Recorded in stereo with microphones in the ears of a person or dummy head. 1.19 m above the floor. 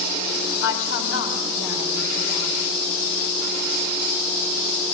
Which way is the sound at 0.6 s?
75° left (ahead or behind).